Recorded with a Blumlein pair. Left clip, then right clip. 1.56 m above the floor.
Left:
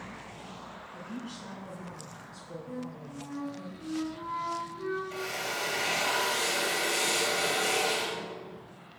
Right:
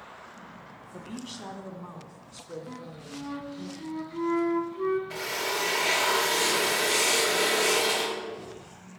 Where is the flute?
55° right, 1.8 m.